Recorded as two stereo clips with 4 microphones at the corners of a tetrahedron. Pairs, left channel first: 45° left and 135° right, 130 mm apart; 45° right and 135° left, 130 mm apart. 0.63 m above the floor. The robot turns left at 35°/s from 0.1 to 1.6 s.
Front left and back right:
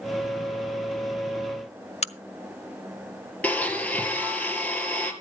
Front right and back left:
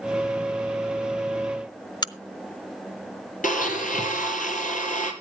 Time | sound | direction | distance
2.0 | a crack | 15° left | 0.7 m
3.4 | a blender | 35° right | 2.5 m